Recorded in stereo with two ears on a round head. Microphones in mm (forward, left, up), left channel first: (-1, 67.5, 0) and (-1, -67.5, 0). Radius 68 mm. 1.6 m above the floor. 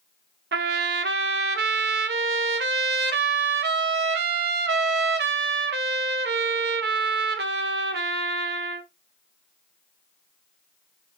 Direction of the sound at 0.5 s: 85° right.